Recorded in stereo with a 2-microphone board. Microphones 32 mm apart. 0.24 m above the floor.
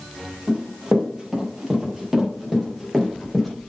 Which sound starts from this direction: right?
Running footsteps, at 0.5 s.